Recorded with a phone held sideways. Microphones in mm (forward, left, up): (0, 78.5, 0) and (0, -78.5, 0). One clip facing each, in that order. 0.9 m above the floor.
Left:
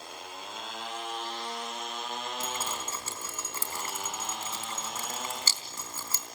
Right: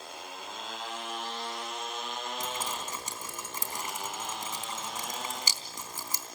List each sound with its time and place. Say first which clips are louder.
2.4 s dripping: even; 15° right (ahead or behind), 3.5 m